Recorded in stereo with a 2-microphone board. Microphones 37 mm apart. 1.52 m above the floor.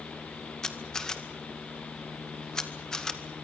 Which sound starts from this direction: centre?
A camera shutter, at 0.6 s.